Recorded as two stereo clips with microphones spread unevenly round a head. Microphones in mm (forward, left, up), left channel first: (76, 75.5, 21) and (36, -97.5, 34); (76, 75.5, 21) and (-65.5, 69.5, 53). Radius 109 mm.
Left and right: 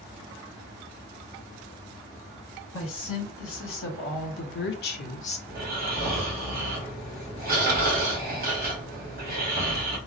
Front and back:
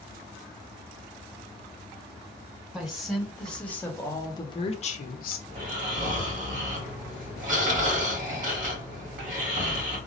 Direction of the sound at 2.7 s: 100° left.